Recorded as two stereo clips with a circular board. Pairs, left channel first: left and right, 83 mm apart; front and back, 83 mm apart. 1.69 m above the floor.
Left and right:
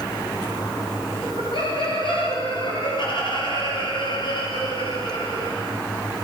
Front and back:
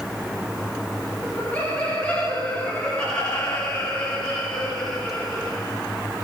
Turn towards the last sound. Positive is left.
turn(degrees=85)